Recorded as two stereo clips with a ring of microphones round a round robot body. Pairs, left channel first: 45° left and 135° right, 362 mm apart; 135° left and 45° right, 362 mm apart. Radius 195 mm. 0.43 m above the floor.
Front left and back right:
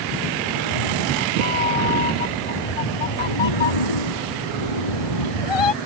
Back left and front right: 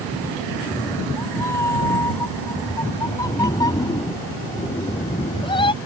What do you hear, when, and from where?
0.5 s a cat meowing: 50° left; by 5.8 s 60° left